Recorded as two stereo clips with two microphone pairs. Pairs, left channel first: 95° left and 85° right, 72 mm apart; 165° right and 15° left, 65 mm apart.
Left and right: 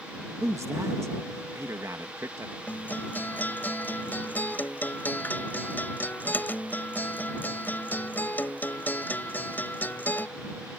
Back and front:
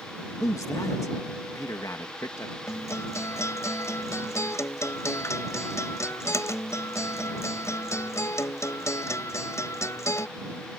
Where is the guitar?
155° left.